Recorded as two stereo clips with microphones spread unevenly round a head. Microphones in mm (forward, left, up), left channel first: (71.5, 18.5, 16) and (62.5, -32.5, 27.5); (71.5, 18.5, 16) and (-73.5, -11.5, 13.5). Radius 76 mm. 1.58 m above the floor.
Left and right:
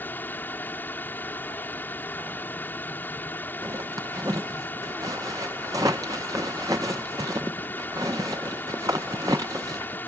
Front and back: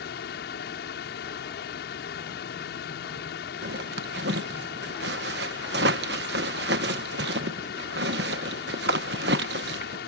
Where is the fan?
30° left.